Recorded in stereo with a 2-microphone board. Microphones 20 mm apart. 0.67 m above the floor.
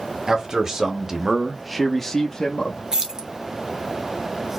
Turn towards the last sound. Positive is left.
turn(degrees=-30)  # may be behind; listen again after turning